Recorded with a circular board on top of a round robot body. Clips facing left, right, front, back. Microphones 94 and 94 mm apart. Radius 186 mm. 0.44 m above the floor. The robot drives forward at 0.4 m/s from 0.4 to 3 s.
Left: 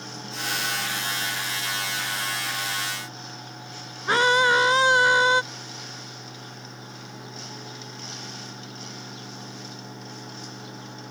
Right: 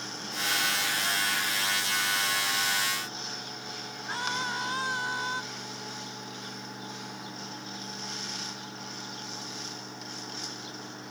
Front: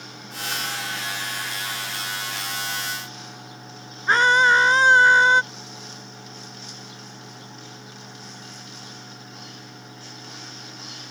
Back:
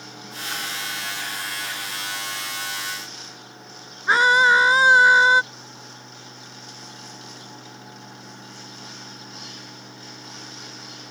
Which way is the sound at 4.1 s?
95° left.